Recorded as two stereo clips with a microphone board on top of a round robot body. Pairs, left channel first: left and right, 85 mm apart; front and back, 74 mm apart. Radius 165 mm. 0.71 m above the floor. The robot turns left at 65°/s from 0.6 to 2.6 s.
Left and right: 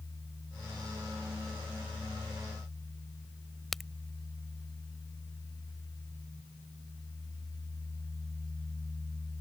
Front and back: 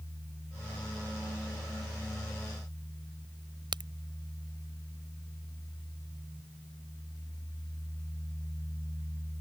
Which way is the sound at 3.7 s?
175° left.